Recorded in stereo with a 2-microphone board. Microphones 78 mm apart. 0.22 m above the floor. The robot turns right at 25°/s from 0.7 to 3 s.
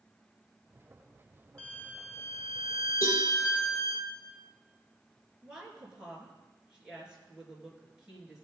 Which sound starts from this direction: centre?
A woman speaking, at 5.4 s.